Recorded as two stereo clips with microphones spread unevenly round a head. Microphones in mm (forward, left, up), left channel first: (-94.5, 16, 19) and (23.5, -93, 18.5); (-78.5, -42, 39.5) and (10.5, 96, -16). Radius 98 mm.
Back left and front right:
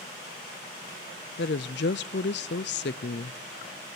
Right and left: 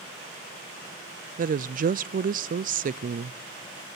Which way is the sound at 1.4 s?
105° left.